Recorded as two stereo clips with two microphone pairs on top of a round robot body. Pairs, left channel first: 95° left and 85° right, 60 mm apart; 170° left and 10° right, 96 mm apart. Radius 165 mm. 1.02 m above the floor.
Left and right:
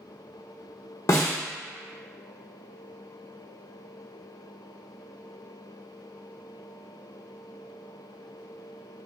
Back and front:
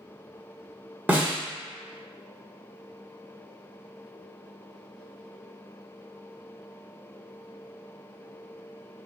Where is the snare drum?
60° left, 0.7 m.